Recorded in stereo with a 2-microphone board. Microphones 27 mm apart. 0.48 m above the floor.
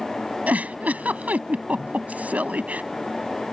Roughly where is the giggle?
Right.